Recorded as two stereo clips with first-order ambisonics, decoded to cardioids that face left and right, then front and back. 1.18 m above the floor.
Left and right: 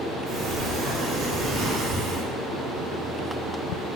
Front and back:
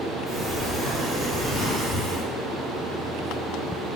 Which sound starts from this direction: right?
A sliding door, at 0.3 s.